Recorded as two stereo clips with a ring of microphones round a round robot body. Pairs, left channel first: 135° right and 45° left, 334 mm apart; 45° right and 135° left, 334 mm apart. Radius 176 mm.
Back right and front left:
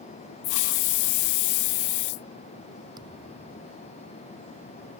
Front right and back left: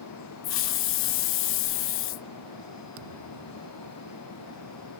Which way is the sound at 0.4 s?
100° right.